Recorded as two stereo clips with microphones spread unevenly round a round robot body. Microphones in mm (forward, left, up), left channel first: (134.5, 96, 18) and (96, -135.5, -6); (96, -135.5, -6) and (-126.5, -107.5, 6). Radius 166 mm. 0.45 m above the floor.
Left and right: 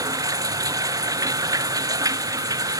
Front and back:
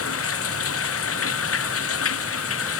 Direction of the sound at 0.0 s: 25° right.